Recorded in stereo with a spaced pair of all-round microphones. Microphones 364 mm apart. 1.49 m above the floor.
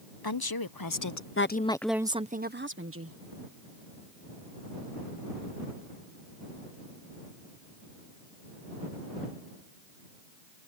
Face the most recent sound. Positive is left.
turn(degrees=-40)  # may be behind; listen again after turning